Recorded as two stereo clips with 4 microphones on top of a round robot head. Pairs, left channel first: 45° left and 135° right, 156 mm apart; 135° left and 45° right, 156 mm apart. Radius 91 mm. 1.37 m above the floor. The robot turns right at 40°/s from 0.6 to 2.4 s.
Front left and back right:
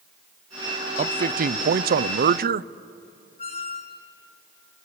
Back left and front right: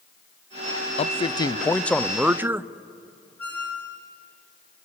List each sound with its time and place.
1.0 s a man speaking: 175° right, 0.6 m; by 2.7 s 120° right, 0.6 m
3.4 s a squeak: 65° left, 1.5 m